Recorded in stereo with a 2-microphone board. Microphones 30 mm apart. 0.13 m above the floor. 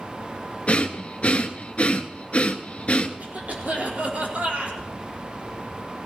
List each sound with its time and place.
0.7 s breathing: 45° left (ahead or behind), 1.1 m
3.2 s a cough: 55° right (ahead or behind), 5.5 m